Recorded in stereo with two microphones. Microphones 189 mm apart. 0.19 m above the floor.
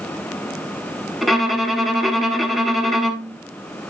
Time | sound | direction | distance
1.2 | a violin | centre (ahead or behind) | 1.0 m